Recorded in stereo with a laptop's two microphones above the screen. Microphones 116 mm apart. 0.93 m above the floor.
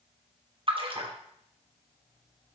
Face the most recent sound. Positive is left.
turn(degrees=-50)  # may be behind; listen again after turning